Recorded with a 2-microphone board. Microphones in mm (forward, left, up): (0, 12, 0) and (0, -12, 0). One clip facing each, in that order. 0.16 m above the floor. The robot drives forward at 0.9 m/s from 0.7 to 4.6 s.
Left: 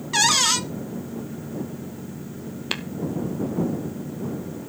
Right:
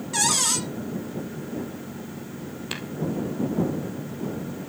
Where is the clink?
I don't hear a clink.